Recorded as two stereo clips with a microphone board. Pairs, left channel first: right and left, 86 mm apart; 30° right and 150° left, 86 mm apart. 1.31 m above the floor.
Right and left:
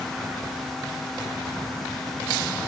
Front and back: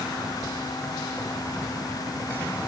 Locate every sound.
Only background noise.